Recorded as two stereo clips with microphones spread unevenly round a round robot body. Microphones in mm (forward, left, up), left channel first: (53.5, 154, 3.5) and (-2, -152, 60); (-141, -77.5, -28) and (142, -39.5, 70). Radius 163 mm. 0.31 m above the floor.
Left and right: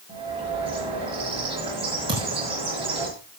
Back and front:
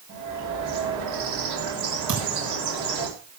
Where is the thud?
25° right, 5.5 m.